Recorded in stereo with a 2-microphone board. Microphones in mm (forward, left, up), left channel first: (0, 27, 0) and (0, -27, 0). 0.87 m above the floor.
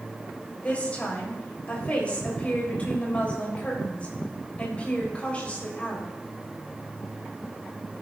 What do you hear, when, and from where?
0.6 s a woman speaking: 25° left (ahead or behind), 3.5 m